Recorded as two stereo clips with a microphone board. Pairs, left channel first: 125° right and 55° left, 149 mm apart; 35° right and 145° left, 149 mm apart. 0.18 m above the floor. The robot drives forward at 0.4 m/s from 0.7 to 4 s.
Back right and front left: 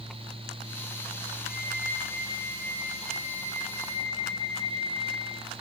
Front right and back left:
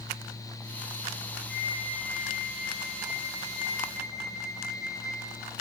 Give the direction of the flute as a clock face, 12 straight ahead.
4 o'clock.